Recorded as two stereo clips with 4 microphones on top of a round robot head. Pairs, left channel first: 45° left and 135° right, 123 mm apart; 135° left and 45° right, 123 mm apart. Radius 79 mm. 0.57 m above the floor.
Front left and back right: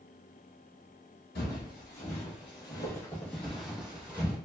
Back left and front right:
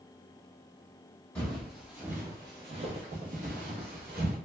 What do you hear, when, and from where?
1.4 s footsteps: 55° left, 0.9 m; by 4.4 s 60° right, 1.3 m